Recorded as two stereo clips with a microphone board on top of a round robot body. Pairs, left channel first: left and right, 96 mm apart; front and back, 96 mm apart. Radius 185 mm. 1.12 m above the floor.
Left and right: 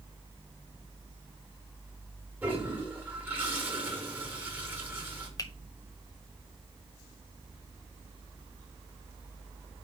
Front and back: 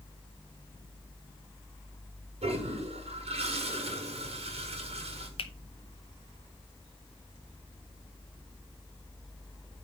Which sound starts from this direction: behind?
A toilet flushing, at 2.4 s.